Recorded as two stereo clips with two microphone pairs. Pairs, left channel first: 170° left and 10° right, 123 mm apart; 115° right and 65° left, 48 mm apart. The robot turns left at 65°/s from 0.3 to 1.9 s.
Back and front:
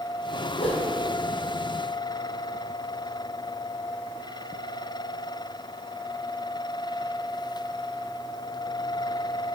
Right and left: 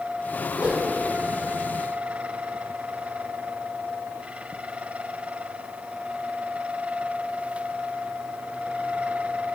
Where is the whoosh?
140° left, 2 m; by 0.9 s 115° left, 2 m.